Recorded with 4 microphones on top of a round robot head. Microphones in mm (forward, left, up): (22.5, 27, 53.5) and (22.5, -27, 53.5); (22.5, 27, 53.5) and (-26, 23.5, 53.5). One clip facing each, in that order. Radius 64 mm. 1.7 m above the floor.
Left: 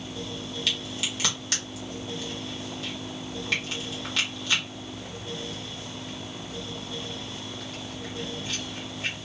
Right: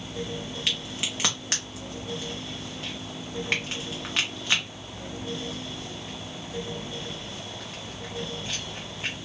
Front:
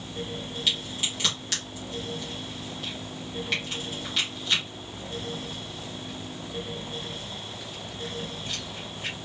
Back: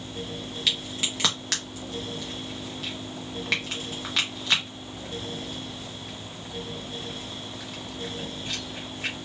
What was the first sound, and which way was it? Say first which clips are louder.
A crack: even, back 1 dB; 160° right.